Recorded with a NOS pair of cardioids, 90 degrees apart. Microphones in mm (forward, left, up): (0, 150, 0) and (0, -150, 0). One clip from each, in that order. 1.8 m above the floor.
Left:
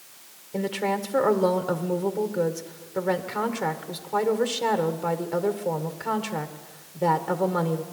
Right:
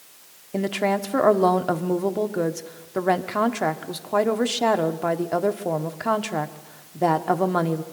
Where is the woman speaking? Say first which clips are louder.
Right 3 dB; 35° right, 1.3 m.